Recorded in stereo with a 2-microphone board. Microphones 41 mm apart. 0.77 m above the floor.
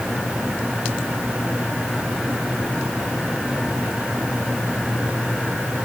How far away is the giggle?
No giggle in this recording.